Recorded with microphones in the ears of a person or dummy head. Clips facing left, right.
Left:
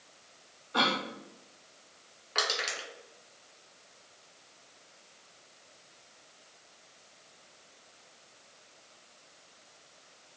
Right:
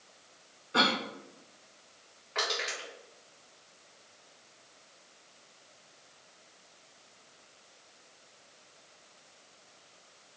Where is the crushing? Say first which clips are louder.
Even; 50° left (ahead or behind), 2 m.